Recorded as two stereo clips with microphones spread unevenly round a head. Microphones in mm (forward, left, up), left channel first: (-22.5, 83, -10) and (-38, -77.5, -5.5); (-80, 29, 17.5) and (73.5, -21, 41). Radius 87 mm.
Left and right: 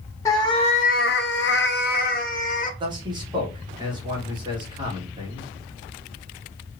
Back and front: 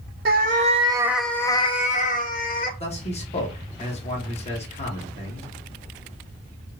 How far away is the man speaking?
About 1.7 m.